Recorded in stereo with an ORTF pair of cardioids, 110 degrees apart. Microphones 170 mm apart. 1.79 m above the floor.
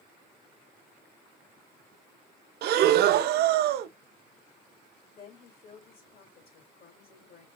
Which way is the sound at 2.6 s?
65° right.